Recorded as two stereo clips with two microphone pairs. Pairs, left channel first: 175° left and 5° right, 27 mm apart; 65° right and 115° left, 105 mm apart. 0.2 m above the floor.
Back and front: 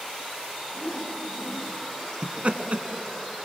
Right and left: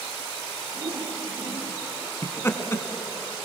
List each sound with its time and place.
0.7 s a whoosh: 140° left, 5 m
2.2 s laughter: 5° right, 1.8 m